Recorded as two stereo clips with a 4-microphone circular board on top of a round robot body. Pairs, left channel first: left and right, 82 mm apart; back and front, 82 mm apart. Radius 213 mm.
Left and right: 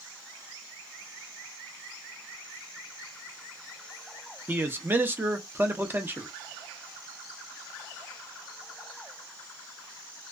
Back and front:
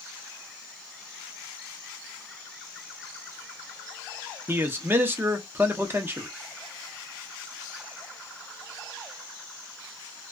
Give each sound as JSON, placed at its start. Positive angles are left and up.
{"t": 4.5, "sound": "a man speaking", "azimuth_deg": -45, "distance_m": 0.9}